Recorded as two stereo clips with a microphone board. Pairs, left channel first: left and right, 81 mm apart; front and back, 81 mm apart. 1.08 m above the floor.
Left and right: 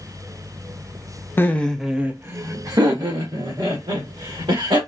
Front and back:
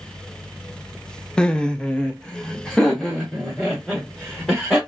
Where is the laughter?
70° left, 0.5 m; by 4.8 s 90° right, 1.7 m.